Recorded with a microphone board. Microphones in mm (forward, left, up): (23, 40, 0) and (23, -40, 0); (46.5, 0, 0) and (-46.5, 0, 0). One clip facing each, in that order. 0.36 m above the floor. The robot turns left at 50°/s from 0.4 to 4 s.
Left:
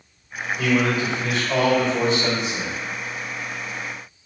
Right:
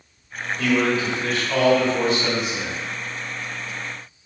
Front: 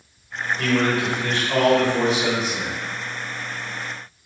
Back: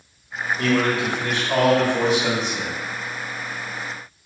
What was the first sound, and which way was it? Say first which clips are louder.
A man speaking: even, even; 170° left.